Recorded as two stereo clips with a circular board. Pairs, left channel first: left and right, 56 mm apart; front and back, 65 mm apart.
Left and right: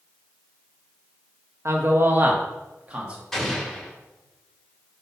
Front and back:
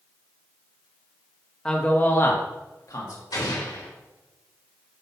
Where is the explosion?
5° left, 2 m.